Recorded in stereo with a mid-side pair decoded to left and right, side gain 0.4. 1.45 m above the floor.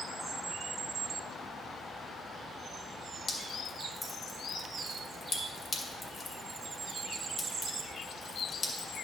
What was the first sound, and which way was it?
Dripping, 40° left.